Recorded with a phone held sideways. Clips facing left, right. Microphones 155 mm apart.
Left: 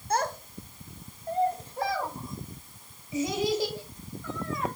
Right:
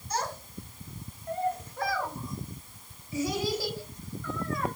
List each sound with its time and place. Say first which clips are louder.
0.1 s a child speaking: left 5 dB; 60° left (ahead or behind), 0.7 m; by 4.7 s 15° left (ahead or behind), 3.5 m